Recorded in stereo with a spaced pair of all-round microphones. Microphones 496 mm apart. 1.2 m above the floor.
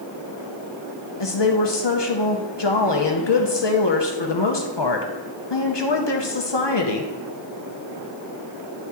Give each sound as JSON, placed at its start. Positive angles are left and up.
{"t": 1.2, "sound": "a woman speaking", "side_deg": 55, "distance_m": 0.9}